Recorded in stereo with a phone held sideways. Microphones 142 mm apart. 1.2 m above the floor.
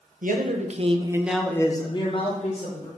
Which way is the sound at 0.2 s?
70° right (ahead or behind).